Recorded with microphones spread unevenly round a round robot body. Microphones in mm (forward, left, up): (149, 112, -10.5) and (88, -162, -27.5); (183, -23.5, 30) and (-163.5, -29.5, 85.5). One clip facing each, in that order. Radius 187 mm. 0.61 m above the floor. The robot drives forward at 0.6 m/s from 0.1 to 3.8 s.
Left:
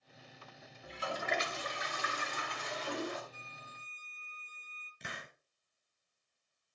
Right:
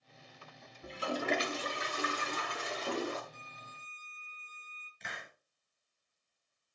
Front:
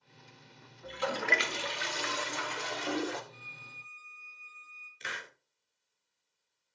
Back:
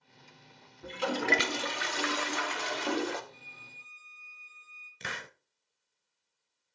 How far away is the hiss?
About 0.8 m.